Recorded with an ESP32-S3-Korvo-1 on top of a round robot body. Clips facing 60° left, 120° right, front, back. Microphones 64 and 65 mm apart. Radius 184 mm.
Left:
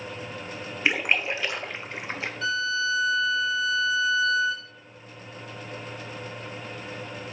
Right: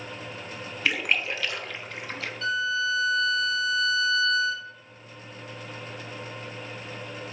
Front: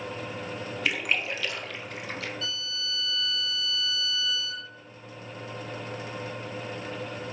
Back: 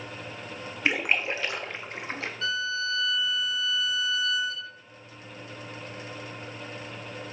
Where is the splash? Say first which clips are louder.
Left 2 dB, back 3 dB; 125° left, 0.7 m.